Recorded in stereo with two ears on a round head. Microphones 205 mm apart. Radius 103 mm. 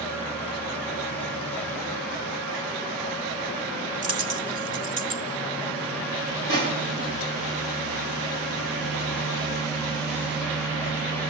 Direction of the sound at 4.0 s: 40° right (ahead or behind).